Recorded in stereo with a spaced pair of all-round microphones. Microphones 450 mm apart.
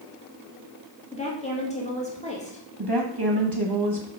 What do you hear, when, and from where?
1.1 s a woman speaking: 15° left (ahead or behind), 1.9 m
2.8 s a woman speaking: 55° right (ahead or behind), 0.9 m